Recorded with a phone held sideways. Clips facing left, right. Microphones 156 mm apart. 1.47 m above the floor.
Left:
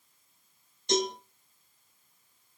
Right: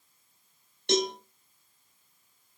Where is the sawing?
I don't hear sawing.